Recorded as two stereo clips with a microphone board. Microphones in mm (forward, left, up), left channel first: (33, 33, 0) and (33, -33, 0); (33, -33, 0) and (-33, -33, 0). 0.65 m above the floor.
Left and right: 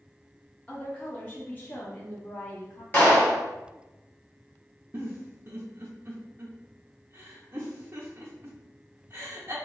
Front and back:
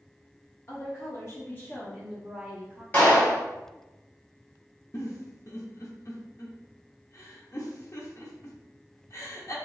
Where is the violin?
No violin in this recording.